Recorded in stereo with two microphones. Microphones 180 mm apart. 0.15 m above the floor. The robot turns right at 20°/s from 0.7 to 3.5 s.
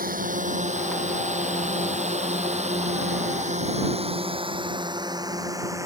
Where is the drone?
50° right (ahead or behind); by 5.9 s 15° right (ahead or behind).